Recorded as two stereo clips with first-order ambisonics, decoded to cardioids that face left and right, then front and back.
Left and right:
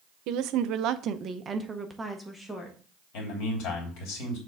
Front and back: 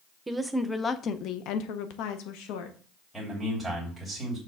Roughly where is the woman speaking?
Right.